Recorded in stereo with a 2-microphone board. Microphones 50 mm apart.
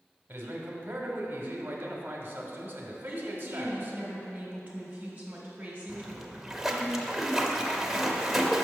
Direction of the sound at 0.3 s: 40° right (ahead or behind).